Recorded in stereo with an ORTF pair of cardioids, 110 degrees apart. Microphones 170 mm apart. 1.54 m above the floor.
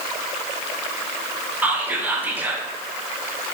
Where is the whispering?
10° right, 0.5 m.